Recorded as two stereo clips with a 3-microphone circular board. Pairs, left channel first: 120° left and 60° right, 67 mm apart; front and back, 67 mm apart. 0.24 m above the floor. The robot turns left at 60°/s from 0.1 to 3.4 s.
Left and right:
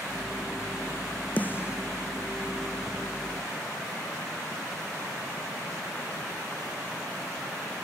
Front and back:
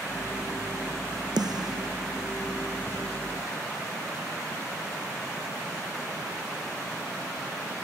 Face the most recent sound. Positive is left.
turn(degrees=65)